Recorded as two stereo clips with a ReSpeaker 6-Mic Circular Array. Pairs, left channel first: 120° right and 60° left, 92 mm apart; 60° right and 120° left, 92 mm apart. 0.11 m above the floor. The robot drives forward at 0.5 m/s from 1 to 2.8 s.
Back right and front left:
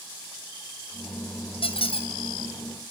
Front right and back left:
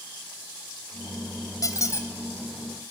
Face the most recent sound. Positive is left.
turn(degrees=-130)